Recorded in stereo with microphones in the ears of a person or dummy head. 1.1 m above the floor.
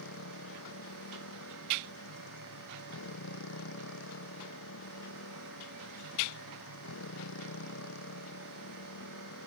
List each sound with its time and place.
0.0 s a motorcycle: 75° left (ahead or behind)